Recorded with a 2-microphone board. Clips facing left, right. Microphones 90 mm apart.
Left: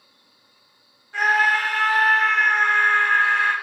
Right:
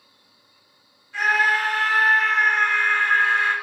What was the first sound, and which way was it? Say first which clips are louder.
A scream: left 1 dB; 40° left (ahead or behind).